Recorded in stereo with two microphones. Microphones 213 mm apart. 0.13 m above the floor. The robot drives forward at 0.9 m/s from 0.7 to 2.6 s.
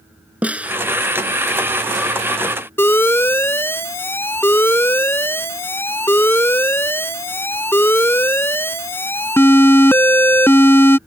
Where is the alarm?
10° left (ahead or behind).